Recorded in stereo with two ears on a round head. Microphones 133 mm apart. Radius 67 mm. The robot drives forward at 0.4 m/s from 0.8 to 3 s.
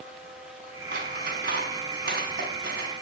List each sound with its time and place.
0.9 s scissors: 65° right (ahead or behind), 5 m; by 3.0 s 70° right (ahead or behind), 4.5 m